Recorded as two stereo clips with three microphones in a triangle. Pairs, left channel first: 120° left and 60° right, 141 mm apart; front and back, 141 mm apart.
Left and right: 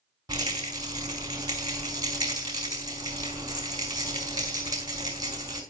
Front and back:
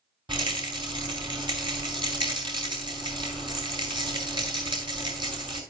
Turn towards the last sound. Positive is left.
turn(degrees=-120)